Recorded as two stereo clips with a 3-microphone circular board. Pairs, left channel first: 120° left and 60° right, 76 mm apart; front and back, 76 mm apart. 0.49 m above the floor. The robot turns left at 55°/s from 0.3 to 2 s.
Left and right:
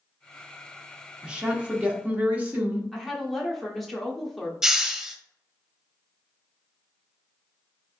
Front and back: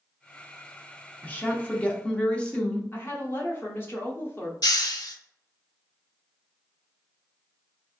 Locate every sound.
1.2 s a woman speaking: 5° right, 0.8 m; by 2.8 s 45° right, 0.8 m
2.9 s a woman speaking: 35° left, 0.9 m
4.6 s a hiss: 25° left, 0.5 m